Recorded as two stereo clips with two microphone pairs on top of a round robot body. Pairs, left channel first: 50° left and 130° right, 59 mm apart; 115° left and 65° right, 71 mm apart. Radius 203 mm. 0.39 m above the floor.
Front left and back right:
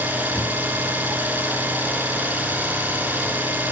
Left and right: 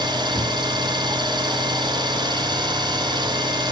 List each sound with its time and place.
0.0 s an engine running: 70° right, 2 m